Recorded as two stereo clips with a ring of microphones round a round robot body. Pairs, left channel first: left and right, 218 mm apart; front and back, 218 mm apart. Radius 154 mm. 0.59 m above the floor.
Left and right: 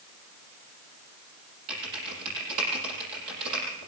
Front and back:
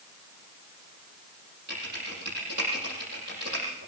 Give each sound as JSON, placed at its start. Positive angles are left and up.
{"t": 1.7, "sound": "typing on a keyboard", "azimuth_deg": -120, "distance_m": 7.5}